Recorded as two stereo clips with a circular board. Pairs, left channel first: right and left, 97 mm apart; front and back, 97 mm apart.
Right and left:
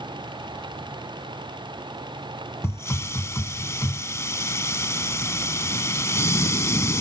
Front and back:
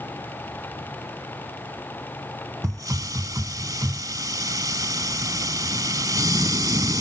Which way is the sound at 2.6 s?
145° right.